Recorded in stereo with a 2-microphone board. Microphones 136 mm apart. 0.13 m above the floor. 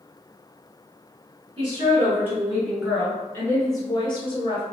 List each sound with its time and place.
1.6 s a woman speaking: 30° right (ahead or behind), 1.6 m; by 4.6 s 45° left (ahead or behind), 1.8 m